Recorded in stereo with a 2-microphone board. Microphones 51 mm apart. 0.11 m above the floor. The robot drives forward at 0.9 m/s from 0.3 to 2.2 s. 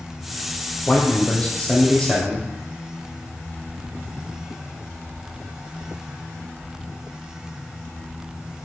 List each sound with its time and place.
0.9 s a man speaking: 30° left (ahead or behind), 2.5 m; by 2.5 s 20° left (ahead or behind), 3.5 m